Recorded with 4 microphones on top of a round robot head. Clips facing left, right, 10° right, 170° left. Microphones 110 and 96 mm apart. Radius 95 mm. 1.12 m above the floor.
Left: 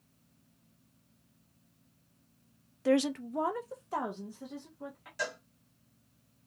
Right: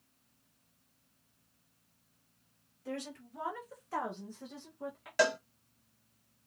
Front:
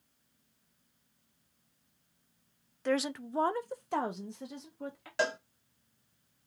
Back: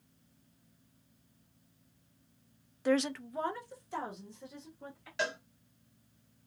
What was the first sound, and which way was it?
A woman speaking, 90° left.